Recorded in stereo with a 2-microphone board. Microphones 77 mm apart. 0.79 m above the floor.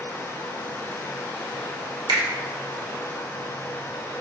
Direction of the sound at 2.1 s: 75° right (ahead or behind).